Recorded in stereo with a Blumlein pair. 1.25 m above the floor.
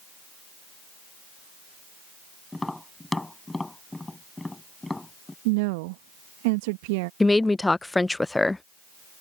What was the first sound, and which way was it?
Tapping, 5° left.